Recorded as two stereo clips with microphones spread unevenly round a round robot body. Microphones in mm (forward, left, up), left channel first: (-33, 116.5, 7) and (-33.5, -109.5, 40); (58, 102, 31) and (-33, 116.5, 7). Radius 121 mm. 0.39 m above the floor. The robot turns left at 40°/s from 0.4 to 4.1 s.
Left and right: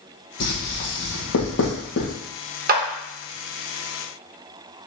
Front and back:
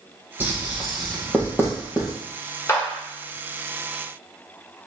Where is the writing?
100° left, 2 m; by 2.1 s 30° left, 2 m.